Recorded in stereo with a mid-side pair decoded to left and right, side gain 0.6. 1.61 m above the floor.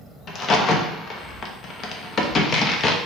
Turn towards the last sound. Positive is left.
turn(degrees=40)